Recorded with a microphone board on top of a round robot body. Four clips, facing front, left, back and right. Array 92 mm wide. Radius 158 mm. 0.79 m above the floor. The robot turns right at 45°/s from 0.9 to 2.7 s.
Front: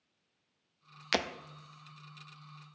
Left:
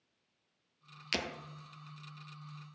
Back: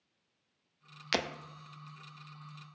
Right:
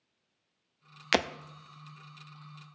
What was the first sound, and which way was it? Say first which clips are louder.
Breaking glass: right 10 dB, front 1 dB; 90° right.